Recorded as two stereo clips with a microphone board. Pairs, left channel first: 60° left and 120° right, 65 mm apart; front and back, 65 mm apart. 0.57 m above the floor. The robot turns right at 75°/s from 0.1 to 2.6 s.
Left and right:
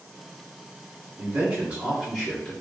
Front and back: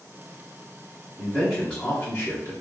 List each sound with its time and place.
1.2 s a man speaking: 110° right, 1.2 m; by 2.5 s 10° right, 1.2 m